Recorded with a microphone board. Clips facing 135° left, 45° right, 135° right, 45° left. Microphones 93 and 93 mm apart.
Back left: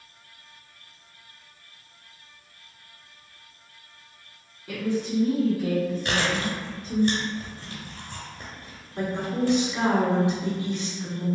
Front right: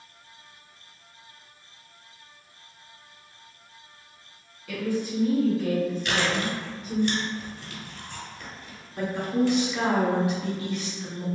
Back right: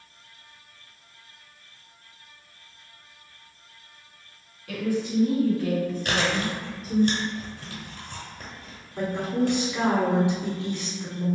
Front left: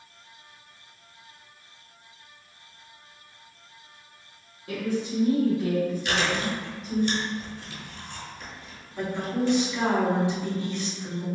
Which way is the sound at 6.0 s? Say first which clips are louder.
Even, back right 1 dB; 175° right.